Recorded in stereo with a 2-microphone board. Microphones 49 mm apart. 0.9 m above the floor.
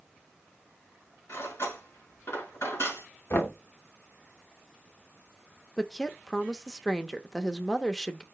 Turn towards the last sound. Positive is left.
turn(degrees=10)  # may be behind; listen again after turning